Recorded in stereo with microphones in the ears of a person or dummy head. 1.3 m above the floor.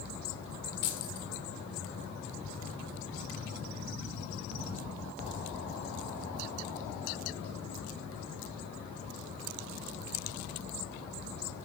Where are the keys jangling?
55° left (ahead or behind), 0.7 m.